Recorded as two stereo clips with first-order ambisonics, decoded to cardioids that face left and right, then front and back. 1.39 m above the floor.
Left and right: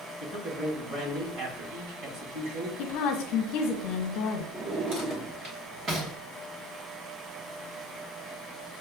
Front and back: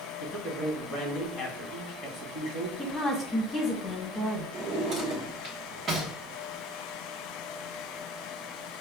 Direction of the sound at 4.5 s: 130° right.